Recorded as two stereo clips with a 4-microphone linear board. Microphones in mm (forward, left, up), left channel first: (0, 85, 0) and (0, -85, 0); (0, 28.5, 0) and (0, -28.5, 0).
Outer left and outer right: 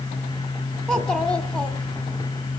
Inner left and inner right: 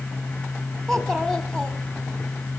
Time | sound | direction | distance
0.9 | a child speaking | 5° left (ahead or behind) | 1.2 m